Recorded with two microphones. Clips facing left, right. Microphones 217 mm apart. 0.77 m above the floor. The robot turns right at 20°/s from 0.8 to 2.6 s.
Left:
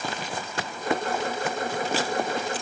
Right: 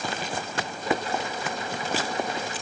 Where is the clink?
I don't hear a clink.